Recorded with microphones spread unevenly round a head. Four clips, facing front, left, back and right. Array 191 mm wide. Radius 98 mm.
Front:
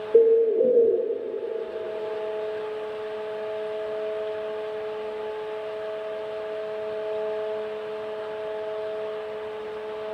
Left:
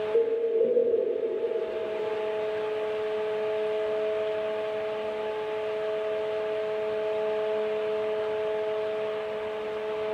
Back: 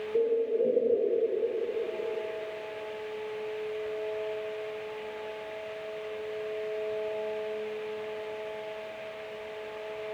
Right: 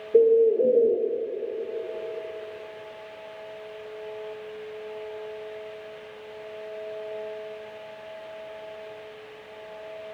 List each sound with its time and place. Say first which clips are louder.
0.1 s a bird: right 8 dB, front 10 dB; 35° right, 0.5 m